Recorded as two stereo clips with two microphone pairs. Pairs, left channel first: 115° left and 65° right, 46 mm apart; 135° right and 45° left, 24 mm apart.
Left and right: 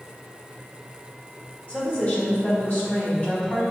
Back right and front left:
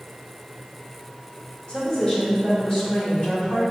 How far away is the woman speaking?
About 1.6 m.